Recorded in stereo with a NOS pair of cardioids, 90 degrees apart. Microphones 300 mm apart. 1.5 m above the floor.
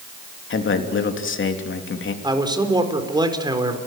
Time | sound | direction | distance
0.5 | a man speaking | 40° left | 3 m
2.2 | a man speaking | 15° right | 4 m